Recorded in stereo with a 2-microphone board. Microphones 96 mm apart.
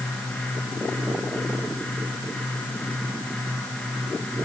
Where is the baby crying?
I don't hear a baby crying.